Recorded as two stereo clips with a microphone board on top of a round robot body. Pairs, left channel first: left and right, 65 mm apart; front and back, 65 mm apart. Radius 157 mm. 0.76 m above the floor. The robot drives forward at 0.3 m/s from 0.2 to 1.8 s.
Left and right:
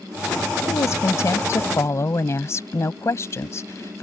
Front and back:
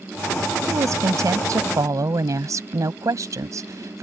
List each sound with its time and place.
0.7 s a woman speaking: 135° left; by 4.0 s 140° left